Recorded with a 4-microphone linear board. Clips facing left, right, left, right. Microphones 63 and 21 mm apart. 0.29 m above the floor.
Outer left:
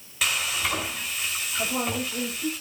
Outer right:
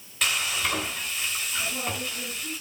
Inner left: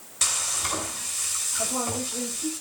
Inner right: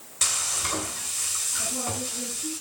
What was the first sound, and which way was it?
Frying, 5° left (ahead or behind).